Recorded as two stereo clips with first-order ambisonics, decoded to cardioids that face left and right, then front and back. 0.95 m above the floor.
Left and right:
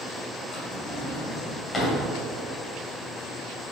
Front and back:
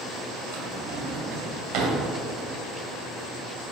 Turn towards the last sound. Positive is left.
turn(degrees=160)